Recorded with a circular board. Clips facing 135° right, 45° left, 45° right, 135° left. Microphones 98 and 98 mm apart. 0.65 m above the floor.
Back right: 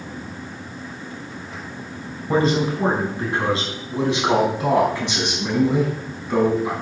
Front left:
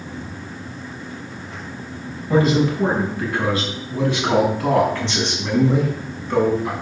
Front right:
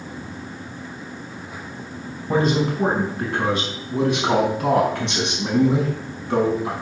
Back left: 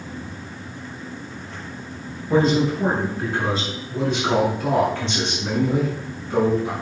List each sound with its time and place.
2.3 s a man speaking: 75° right, 5 m; by 6.7 s 50° right, 5 m